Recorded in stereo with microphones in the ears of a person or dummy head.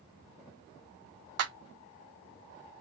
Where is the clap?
70° right (ahead or behind), 1.1 m.